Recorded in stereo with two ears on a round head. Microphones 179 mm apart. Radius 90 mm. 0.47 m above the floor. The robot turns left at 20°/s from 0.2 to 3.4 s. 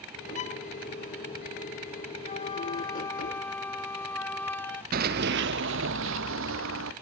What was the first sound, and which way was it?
A violin, 35° left (ahead or behind).